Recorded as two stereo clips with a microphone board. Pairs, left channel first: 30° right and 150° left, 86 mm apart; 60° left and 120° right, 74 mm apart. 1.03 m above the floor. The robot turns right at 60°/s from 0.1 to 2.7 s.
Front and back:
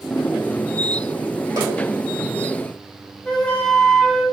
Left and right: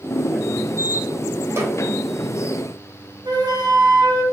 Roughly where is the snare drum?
Behind.